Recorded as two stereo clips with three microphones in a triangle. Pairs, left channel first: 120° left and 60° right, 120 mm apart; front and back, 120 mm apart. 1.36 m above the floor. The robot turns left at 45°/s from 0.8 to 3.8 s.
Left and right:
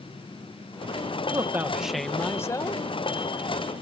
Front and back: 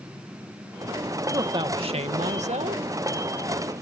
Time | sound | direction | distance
1.3 | a man speaking | 120° right | ?